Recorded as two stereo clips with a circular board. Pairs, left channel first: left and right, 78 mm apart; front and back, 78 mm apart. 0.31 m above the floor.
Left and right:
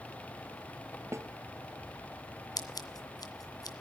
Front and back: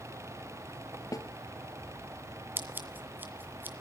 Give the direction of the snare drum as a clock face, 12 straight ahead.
1 o'clock.